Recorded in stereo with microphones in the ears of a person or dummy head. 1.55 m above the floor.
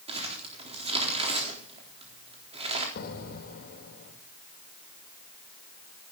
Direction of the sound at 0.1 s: 30° right (ahead or behind).